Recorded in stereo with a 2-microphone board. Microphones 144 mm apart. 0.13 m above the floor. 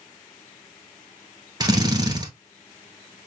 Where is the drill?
25° right (ahead or behind), 0.9 m.